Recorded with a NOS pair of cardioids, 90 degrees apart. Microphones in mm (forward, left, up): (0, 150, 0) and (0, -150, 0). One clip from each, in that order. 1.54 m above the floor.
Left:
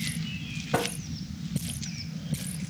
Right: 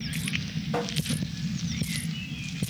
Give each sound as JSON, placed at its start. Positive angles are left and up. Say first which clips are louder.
{"t": 0.7, "sound": "tapping", "louder": "left 2 dB", "azimuth_deg": 35, "distance_m": 2.0}